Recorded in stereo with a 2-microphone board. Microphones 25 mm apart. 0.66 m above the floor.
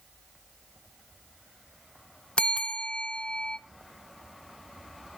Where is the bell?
50° left (ahead or behind), 0.5 m.